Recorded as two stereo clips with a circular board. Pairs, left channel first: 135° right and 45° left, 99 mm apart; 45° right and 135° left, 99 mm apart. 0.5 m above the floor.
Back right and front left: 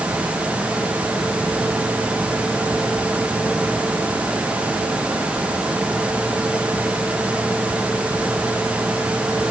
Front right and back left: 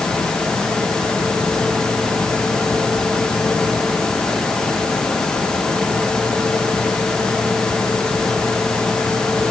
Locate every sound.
Only background noise.